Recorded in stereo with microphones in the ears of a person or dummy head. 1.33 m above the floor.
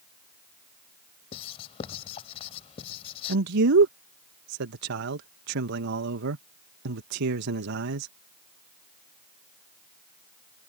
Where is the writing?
35° left (ahead or behind).